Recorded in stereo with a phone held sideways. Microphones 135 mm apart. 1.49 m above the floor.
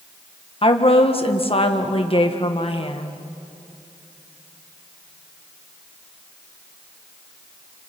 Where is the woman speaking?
45° left (ahead or behind), 1.6 m.